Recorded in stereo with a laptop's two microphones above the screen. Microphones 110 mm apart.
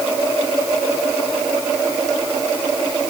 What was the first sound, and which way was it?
Only background noise.